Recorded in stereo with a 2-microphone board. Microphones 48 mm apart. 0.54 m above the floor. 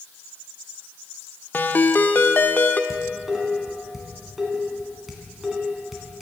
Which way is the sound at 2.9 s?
5° right (ahead or behind).